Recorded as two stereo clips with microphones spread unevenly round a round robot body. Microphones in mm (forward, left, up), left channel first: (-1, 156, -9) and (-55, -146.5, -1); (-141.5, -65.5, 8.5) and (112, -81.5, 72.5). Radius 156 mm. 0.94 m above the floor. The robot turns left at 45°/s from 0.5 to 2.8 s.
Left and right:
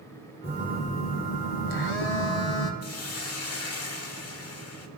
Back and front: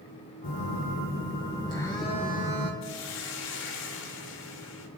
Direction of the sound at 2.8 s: 125° left.